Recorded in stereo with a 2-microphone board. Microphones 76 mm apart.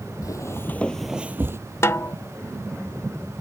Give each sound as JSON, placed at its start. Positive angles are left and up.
{"t": 0.2, "sound": "footsteps", "side_deg": 55}
{"t": 1.8, "sound": "a snare drum", "side_deg": 40}